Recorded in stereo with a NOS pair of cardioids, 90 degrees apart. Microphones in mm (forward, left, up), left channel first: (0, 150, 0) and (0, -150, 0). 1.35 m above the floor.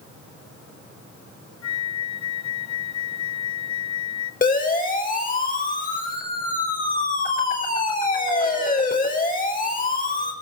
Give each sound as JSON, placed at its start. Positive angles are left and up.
{"t": 1.6, "sound": "a flute", "azimuth_deg": 60, "distance_m": 1.2}
{"t": 4.4, "sound": "a siren", "azimuth_deg": 25, "distance_m": 7.5}